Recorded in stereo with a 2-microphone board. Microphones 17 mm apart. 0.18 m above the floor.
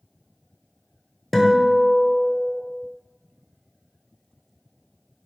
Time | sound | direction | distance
1.3 | a guitar | 5° left (ahead or behind) | 0.7 m